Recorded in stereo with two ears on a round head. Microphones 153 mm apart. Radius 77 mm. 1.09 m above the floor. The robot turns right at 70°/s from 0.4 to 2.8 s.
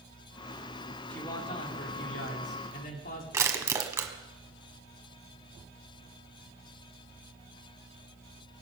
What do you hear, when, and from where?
1.1 s a man speaking: 5° left, 3 m; by 3.2 s 125° left, 3 m
3.3 s crushing: 15° right (ahead or behind), 1.5 m